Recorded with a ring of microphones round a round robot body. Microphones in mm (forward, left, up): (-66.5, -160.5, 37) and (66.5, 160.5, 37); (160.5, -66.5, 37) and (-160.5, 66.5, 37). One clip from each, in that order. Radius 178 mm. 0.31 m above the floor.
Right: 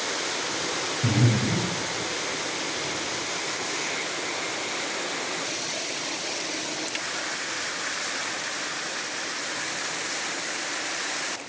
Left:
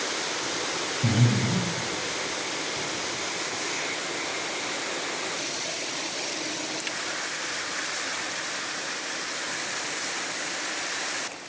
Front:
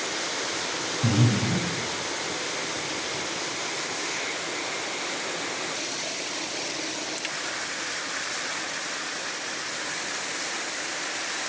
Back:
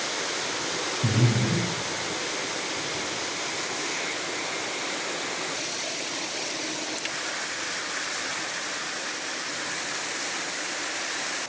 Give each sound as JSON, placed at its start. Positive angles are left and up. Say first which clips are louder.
{"t": 1.0, "sound": "breathing", "louder": "right 1 dB, front 2 dB", "azimuth_deg": -5, "distance_m": 7.5}